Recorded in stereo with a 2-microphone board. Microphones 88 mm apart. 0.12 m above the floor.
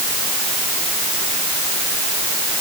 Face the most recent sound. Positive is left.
No sound to turn to.